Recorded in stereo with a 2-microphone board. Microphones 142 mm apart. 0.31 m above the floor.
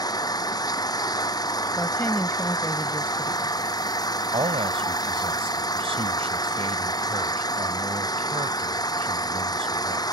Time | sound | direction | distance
0.0 | an engine running | 30° left (ahead or behind) | ?
1.8 | a woman speaking | 15° left (ahead or behind) | ?
4.3 | a man speaking | 45° right (ahead or behind) | ?